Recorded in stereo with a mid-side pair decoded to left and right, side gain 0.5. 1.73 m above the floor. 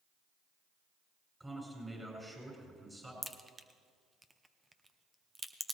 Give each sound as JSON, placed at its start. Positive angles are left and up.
{"t": 1.4, "sound": "a man speaking", "azimuth_deg": -10, "distance_m": 8.0}
{"t": 3.2, "sound": "a crack", "azimuth_deg": -15, "distance_m": 1.0}